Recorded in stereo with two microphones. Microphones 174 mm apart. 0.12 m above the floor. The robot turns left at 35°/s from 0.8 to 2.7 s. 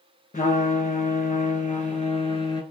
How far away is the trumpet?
About 0.5 m.